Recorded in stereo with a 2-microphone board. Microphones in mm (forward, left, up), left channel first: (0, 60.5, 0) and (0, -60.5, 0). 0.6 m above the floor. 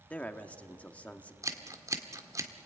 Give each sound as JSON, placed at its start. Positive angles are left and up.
{"t": 0.1, "sound": "a man speaking", "side_deg": 10, "distance_m": 1.3}
{"t": 1.4, "sound": "scissors", "side_deg": -25, "distance_m": 1.6}